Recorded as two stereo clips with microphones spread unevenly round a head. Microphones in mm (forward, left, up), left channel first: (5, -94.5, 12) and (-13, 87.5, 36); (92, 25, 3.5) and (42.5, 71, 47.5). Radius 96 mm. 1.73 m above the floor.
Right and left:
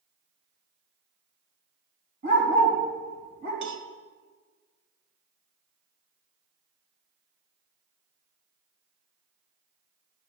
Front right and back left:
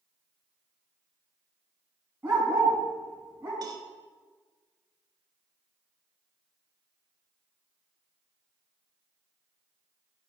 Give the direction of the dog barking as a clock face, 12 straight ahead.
9 o'clock.